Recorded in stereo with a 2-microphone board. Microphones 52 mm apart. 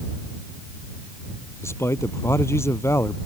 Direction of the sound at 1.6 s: 60° left (ahead or behind).